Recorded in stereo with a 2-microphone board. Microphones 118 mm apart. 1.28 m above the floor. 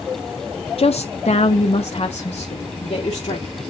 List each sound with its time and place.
0.8 s a woman speaking: 55° left (ahead or behind), 0.6 m; by 3.6 s 50° left (ahead or behind), 2.5 m